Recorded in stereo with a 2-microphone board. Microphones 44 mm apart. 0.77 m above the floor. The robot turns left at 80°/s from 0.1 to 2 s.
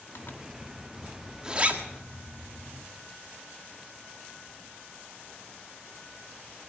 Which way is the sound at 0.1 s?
60° left (ahead or behind).